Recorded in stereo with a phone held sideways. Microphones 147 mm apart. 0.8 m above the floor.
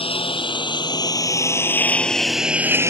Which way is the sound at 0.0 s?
35° left (ahead or behind).